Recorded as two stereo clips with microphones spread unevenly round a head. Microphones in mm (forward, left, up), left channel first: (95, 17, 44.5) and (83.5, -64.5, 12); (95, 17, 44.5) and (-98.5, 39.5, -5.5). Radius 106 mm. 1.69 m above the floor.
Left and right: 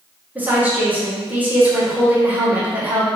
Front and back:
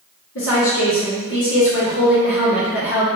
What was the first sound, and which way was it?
A woman speaking, 20° right.